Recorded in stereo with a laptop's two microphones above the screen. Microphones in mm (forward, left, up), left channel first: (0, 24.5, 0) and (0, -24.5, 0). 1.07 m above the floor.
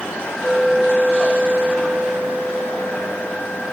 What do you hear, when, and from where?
0.4 s a clink: 70° right (ahead or behind), 6 m